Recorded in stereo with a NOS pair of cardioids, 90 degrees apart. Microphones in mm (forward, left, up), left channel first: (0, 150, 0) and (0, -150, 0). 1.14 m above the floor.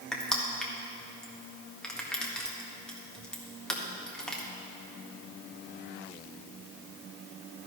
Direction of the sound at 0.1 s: Straight ahead.